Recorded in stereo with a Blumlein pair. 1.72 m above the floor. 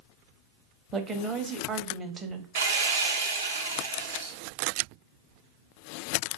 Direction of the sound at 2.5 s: 65° right.